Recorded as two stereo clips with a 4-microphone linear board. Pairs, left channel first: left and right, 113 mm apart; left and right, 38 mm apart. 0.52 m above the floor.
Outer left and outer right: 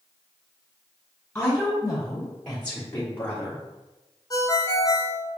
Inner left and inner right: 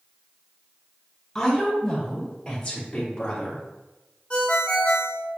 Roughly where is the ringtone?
Left.